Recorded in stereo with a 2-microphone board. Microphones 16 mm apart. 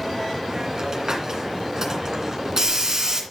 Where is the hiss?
35° right (ahead or behind), 2.5 m.